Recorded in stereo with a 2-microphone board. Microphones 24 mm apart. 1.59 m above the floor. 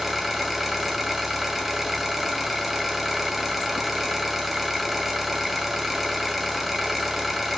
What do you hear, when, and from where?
0.0 s an engine running: 10° right (ahead or behind), 1.9 m